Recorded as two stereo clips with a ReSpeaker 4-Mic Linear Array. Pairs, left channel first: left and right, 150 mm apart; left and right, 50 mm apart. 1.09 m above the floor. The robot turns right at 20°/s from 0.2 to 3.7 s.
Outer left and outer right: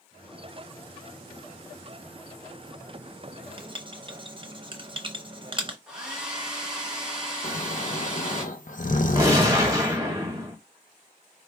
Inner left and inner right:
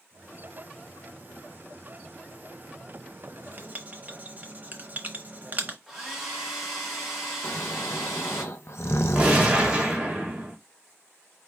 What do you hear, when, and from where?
3.3 s writing: 40° right (ahead or behind), 0.7 m; by 5.8 s 35° right (ahead or behind), 0.7 m
5.9 s a hair dryer: 5° right (ahead or behind), 1.9 m
7.4 s snoring: 60° left (ahead or behind), 0.6 m
9.2 s a gunshot: 20° right (ahead or behind), 1.8 m